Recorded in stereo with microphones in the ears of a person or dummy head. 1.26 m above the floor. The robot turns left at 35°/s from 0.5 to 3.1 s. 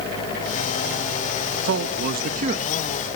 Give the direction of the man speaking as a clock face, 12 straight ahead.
4 o'clock.